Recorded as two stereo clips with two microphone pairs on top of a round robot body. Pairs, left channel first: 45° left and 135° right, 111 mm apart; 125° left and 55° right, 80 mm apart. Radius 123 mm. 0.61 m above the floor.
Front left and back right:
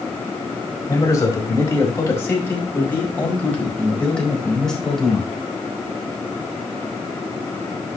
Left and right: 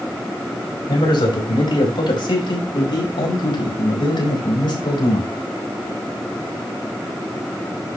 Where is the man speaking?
105° left, 5 m; by 5.3 s 135° left, 4.5 m.